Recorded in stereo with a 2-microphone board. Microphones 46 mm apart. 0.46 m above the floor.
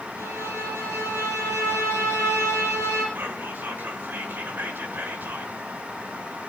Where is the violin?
75° right (ahead or behind), 4.5 m.